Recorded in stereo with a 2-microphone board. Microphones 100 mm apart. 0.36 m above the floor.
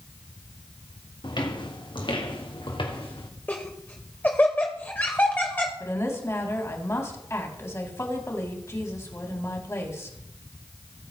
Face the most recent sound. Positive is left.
turn(degrees=30)  # may be behind; listen again after turning